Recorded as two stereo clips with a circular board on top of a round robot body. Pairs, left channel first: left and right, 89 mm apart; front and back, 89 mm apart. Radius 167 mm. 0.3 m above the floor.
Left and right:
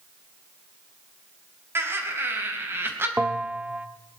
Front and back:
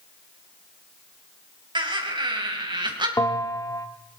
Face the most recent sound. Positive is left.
turn(degrees=-25)